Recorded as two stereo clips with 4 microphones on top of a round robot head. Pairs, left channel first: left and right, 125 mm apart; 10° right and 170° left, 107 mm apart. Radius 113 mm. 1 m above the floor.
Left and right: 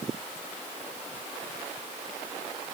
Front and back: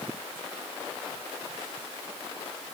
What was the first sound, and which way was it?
Only background noise.